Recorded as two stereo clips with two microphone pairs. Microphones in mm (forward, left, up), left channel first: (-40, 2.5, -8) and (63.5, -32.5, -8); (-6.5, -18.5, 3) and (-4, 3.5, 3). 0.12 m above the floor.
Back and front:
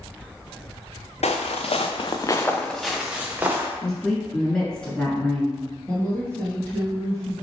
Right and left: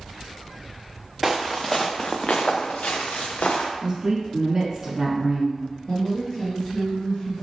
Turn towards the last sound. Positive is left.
turn(degrees=-135)